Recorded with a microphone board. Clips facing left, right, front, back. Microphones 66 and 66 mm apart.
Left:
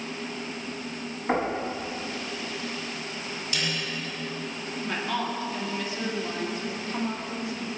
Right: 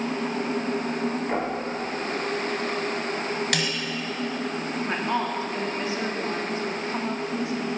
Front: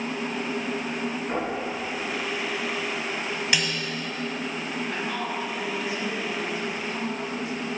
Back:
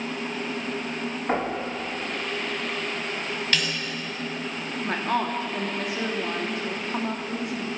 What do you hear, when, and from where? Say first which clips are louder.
1.3 s knocking: left 1 dB, back 5 dB; 150° left, 4 m
3.5 s a snare drum: right 4 dB, even; 80° right, 1.8 m
4.8 s a woman speaking: right 2 dB, back 8 dB; 155° right, 1.7 m